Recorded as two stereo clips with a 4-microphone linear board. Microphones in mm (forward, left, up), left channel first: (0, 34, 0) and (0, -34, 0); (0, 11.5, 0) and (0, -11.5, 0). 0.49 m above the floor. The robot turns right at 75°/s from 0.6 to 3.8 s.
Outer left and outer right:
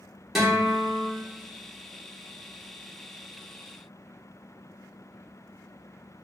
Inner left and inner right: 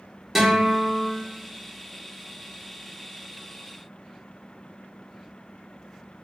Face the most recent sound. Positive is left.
turn(degrees=65)